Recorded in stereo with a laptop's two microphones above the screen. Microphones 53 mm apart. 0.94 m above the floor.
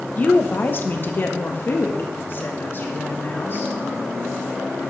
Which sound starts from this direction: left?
A woman speaking, at 0.2 s.